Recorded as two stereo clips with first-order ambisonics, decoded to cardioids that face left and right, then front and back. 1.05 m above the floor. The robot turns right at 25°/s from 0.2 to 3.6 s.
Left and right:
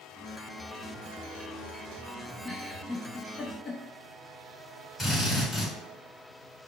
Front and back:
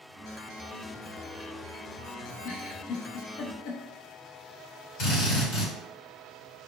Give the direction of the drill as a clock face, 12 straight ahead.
12 o'clock.